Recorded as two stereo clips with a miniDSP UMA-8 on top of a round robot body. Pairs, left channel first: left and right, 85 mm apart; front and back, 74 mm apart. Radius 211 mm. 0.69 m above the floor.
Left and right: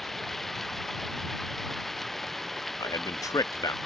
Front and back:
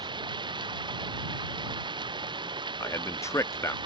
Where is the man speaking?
45° left.